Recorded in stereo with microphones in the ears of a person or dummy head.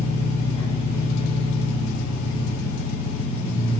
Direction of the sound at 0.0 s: 35° left (ahead or behind).